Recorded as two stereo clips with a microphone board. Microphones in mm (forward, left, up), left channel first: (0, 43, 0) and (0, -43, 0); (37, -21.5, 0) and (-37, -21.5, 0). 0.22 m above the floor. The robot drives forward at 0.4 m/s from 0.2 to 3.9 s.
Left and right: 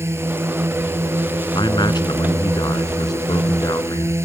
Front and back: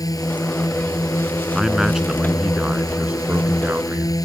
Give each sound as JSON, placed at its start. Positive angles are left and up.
{"t": 0.0, "sound": "a drone", "azimuth_deg": -35}
{"t": 1.6, "sound": "a man speaking", "azimuth_deg": 95}